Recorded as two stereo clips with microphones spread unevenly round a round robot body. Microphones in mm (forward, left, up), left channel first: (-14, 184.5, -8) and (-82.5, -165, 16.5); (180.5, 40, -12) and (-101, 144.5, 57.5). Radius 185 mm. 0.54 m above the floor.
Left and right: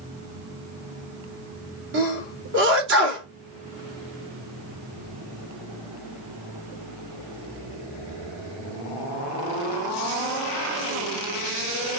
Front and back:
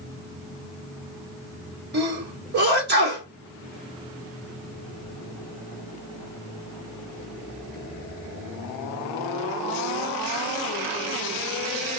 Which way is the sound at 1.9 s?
145° right.